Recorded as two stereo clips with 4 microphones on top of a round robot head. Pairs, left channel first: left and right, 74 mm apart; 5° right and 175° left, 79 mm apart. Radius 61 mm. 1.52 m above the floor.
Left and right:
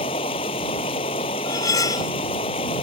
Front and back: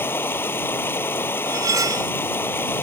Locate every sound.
0.0 s running water: 60° left
1.4 s cutlery clinking: 130° left